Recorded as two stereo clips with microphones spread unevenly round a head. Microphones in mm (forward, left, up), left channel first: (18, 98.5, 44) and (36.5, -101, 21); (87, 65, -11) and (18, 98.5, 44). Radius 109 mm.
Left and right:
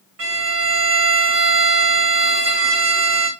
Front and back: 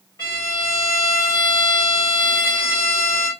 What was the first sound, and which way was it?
A violin, 80° right.